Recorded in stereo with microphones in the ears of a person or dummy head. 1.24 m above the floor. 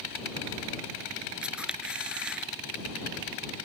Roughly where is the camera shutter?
Centre.